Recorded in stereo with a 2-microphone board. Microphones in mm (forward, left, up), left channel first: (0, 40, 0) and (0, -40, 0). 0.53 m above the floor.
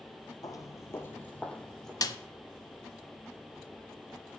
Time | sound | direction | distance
0.4 | footsteps | 50° left (ahead or behind) | 0.7 m
2.0 | a snare drum | 50° left (ahead or behind) | 0.7 m